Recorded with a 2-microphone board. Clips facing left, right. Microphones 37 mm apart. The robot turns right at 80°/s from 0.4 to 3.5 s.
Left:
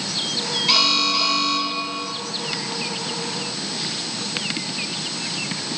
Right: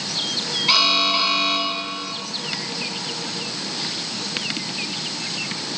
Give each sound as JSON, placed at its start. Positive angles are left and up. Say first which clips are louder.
{"t": 0.7, "sound": "an alarm", "louder": "right 2 dB", "azimuth_deg": -155, "distance_m": 2.5}